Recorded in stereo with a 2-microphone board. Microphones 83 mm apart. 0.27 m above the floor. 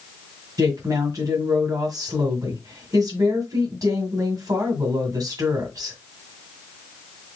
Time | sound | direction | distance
0.6 | a woman speaking | 50° right (ahead or behind) | 1.9 m